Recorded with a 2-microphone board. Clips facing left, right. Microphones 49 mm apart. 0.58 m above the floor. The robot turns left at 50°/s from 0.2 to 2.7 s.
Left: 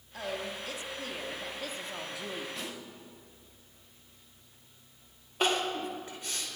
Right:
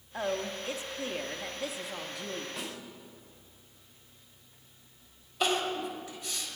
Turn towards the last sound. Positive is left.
turn(degrees=40)  # may be behind; listen again after turning